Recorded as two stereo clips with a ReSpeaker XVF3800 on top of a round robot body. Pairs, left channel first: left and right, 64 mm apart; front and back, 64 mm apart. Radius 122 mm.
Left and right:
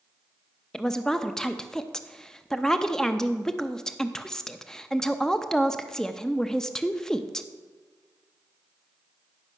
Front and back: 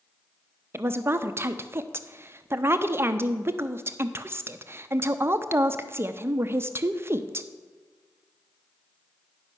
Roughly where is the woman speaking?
Behind.